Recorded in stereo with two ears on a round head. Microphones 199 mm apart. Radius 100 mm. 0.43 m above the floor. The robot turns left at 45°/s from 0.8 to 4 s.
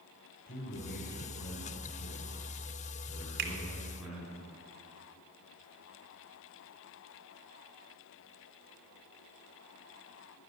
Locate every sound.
0.5 s a man speaking: 135° left, 3.5 m; by 4.4 s 10° right, 3.5 m
3.4 s a finger snap: 50° right (ahead or behind), 2 m; by 3.5 s 45° right (ahead or behind), 2 m